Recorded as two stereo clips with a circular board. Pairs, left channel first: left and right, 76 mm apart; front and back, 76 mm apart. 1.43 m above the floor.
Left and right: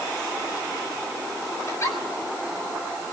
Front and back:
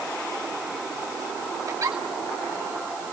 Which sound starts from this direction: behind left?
A giggle, at 1.7 s.